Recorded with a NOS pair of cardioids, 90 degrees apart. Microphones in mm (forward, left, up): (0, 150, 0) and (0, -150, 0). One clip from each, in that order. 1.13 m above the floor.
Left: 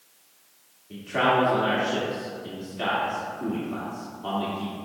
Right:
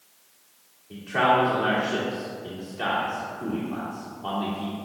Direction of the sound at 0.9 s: 10° left.